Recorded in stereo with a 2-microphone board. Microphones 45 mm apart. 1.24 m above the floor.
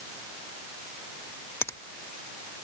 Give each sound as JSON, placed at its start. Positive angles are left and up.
{"t": 1.6, "sound": "a finger snap", "side_deg": 70}